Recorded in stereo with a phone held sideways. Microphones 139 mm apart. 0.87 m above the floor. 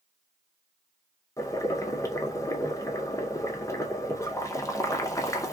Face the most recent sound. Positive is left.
turn(degrees=20)  # may be behind; listen again after turning